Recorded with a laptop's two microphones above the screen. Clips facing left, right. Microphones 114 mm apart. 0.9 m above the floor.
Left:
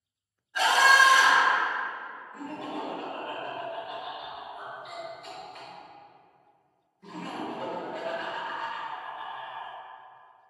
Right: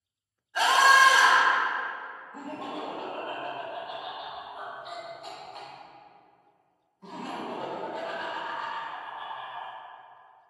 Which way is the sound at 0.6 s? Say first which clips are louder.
Right 1 dB; 40° right (ahead or behind).